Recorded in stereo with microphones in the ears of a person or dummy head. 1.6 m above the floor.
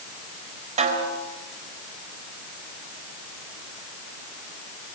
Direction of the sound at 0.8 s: 40° right (ahead or behind).